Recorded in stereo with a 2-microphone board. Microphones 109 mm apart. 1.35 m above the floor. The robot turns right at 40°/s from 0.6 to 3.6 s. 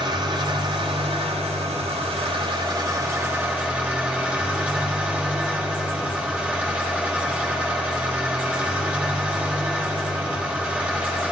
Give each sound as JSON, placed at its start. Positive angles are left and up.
{"t": 0.0, "sound": "an engine running", "azimuth_deg": -130, "distance_m": 5.0}